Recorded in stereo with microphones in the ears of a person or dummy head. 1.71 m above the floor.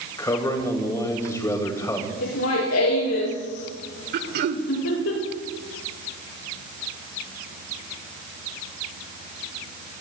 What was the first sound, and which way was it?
A man speaking, 15° left (ahead or behind).